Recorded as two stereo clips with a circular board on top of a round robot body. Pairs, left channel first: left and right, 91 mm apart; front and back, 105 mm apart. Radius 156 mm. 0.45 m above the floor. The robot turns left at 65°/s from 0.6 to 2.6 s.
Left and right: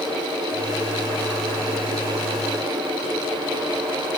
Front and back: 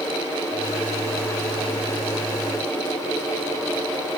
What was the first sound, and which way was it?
Only background noise.